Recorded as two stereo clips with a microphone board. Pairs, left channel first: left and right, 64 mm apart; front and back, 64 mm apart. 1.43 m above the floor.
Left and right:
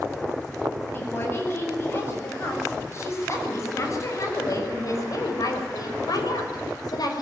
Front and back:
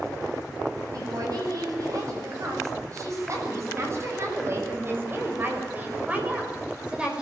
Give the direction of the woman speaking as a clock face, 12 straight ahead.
7 o'clock.